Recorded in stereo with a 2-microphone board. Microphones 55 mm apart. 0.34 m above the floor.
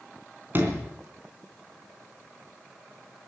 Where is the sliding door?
35° right (ahead or behind), 3.5 m.